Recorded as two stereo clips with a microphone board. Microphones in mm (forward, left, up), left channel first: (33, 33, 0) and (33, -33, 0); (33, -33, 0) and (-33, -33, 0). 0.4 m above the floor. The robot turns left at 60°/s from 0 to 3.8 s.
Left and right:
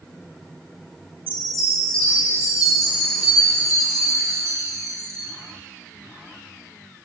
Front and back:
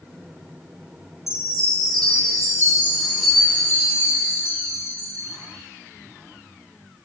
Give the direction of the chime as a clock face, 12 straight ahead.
5 o'clock.